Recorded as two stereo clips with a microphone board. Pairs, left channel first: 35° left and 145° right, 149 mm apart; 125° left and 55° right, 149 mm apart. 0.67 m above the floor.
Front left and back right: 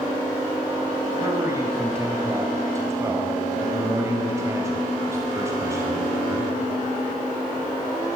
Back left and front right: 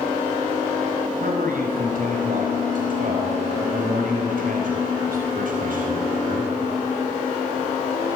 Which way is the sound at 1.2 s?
75° right.